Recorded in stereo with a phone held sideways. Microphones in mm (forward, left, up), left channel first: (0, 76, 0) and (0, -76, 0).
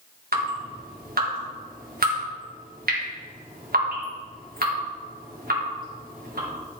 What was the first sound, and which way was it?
Dripping, 85° right.